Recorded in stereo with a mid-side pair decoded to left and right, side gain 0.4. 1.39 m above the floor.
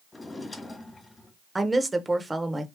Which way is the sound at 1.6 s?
20° right.